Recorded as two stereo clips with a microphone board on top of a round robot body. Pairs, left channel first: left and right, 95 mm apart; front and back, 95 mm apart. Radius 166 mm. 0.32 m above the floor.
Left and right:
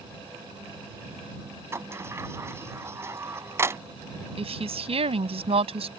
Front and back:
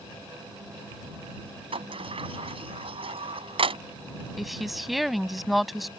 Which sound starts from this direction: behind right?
A sliding door, at 1.7 s.